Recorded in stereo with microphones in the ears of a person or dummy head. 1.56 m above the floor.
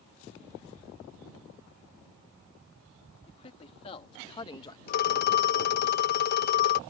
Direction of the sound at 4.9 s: 50° left (ahead or behind).